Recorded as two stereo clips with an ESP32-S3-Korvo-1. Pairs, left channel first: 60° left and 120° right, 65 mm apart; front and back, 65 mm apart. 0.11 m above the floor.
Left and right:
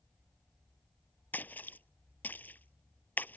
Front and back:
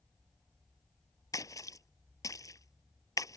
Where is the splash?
5° left.